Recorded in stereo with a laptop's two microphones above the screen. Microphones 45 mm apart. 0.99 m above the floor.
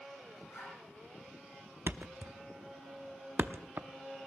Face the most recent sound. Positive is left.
turn(degrees=-55)  # may be behind; listen again after turning